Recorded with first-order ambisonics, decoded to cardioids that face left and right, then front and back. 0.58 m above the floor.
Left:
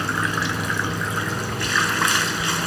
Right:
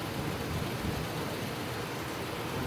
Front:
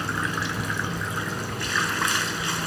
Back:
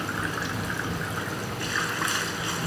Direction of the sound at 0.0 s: 75° left.